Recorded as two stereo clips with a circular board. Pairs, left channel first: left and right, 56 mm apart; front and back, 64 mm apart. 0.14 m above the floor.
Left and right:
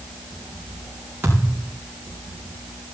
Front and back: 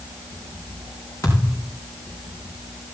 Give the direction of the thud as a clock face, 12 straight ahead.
1 o'clock.